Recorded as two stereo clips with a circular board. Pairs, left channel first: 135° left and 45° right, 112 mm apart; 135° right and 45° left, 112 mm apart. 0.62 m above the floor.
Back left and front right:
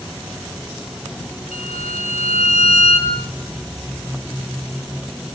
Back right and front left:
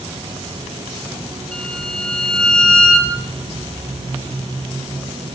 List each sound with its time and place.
1.5 s a violin: 145° left, 8.5 m